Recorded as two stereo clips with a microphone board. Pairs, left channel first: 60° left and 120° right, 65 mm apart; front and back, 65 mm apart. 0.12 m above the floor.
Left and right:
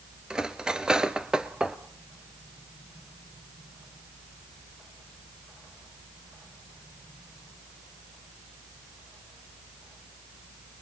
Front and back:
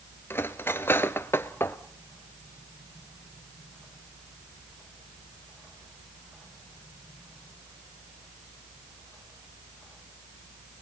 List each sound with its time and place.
0.3 s cutlery clinking: 45° right, 1.0 m